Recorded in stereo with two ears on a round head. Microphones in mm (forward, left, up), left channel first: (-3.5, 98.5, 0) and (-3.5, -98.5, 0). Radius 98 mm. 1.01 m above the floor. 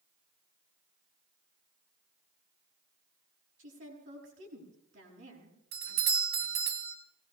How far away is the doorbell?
About 3 m.